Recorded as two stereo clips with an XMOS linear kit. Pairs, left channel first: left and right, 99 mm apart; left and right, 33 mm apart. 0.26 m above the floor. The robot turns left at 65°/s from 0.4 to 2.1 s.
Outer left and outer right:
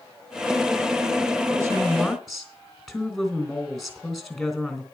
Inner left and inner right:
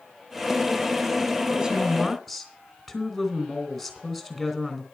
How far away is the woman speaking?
About 3 m.